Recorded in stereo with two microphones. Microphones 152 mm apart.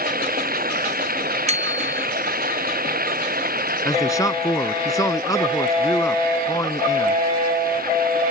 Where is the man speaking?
25° left (ahead or behind).